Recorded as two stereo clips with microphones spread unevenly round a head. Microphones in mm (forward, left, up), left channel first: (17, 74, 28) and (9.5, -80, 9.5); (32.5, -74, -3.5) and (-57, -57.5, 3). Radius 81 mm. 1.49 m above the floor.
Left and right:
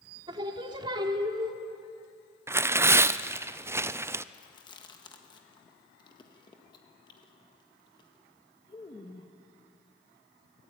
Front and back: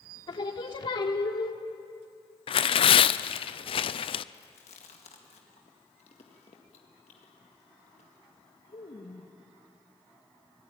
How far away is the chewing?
About 1.8 m.